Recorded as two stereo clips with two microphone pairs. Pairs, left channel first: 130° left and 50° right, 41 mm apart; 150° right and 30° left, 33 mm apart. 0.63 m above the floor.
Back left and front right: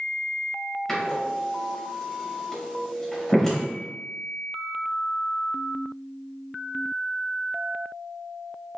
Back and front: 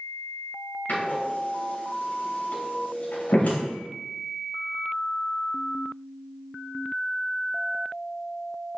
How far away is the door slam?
About 2.5 m.